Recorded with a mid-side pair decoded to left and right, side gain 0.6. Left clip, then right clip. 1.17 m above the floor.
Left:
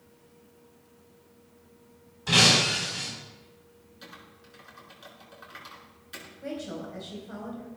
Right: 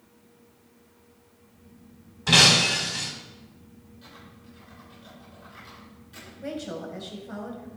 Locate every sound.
2.3 s breaking glass: 30° right, 4 m
4.0 s typing on a keyboard: 55° left, 4.5 m
6.4 s a woman speaking: 15° right, 4.5 m